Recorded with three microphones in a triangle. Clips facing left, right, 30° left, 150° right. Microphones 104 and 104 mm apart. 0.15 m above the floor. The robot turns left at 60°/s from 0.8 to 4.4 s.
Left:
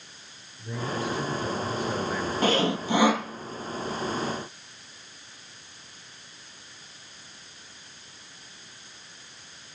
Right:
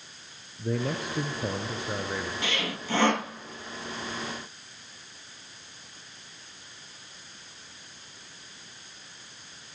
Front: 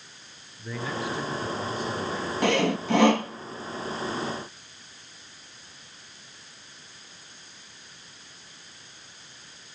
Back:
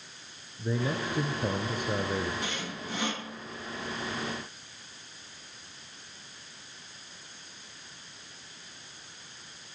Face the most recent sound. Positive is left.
turn(degrees=-75)